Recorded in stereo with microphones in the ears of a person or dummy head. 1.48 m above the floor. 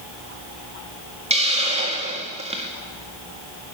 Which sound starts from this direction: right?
A hiss, at 1.3 s.